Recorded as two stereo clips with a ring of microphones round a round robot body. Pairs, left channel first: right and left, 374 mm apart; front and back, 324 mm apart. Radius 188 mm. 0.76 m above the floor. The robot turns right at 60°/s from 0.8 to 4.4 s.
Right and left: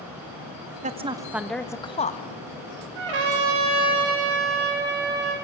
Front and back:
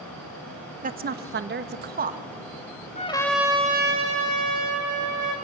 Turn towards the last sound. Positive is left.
turn(degrees=155)